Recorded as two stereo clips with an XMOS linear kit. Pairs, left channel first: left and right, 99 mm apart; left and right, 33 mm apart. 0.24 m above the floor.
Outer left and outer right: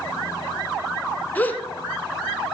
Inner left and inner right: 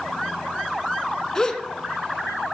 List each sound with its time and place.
1.4 s a gasp: 20° left (ahead or behind), 0.9 m